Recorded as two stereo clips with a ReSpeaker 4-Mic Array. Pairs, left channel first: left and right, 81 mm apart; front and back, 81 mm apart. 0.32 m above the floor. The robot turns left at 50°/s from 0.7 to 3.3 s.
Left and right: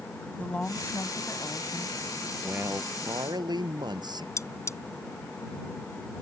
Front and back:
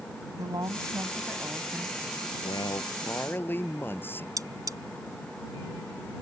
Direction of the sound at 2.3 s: 15° right.